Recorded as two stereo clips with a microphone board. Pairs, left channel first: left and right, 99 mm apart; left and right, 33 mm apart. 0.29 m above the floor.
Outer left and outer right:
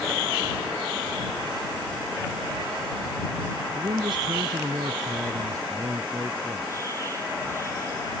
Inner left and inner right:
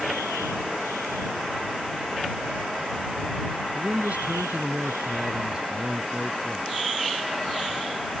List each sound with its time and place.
3.7 s a man speaking: 60° right (ahead or behind); by 6.7 s 25° right (ahead or behind)